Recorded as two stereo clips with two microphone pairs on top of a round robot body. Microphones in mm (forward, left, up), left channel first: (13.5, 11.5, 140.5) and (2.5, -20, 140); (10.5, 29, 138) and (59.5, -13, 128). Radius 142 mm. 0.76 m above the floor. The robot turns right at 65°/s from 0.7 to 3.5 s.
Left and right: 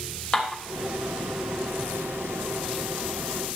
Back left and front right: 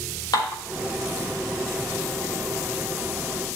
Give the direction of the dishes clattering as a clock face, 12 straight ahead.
7 o'clock.